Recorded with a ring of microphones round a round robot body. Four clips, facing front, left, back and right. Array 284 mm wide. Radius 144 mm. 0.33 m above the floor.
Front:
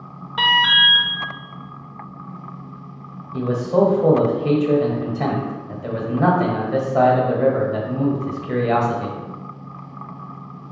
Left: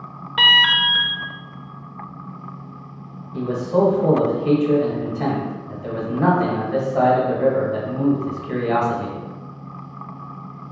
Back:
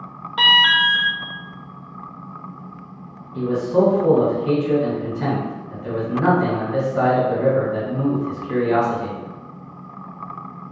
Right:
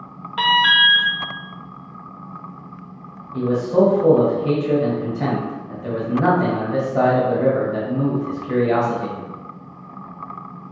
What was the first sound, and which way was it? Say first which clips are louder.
An alarm: right 3 dB, even; 105° left.